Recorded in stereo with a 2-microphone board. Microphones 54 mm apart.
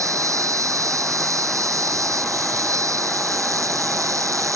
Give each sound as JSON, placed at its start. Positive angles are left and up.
{"t": 0.0, "sound": "an insect", "side_deg": -80}